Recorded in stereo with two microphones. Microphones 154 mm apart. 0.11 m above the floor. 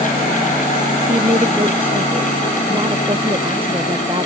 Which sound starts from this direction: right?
A woman speaking, at 1.1 s.